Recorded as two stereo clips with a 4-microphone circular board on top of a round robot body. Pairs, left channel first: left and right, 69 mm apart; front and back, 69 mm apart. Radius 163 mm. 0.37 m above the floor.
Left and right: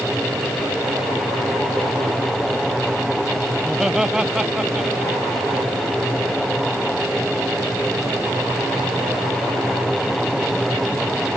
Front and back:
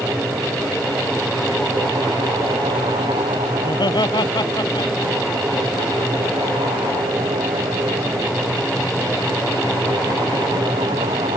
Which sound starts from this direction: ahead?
Laughter, at 3.6 s.